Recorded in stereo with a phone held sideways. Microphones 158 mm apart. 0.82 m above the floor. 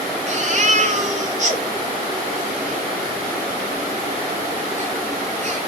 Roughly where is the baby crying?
Right.